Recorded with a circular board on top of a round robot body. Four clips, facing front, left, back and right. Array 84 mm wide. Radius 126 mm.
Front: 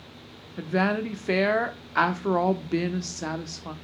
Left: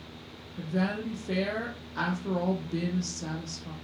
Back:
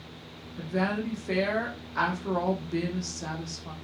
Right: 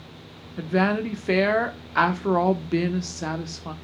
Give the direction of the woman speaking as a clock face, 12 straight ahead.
2 o'clock.